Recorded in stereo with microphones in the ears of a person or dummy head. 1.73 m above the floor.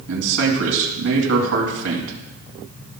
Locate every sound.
0.1 s a man speaking: 75° right (ahead or behind), 2.5 m